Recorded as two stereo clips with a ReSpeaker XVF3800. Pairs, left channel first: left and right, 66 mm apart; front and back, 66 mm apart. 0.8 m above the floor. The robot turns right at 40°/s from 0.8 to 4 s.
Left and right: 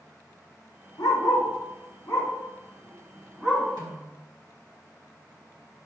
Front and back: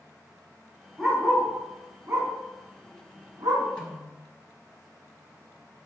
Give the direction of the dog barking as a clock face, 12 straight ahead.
9 o'clock.